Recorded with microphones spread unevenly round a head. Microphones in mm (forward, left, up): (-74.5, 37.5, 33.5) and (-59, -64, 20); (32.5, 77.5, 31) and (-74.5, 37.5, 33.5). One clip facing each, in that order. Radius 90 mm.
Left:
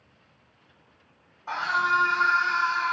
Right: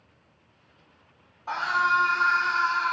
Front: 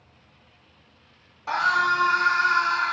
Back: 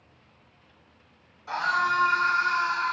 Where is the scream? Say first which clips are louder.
Right 1 dB, front 3 dB; 5° left, 2.5 m.